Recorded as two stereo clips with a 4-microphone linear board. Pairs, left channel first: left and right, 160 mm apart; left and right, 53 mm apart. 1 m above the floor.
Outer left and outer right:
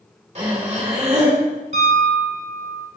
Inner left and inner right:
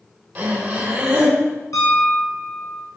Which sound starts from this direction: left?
A piano, at 1.7 s.